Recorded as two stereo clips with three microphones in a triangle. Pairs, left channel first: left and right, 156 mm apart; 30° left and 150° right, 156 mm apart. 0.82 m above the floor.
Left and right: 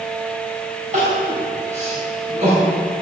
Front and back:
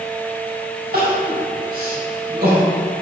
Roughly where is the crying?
Behind right.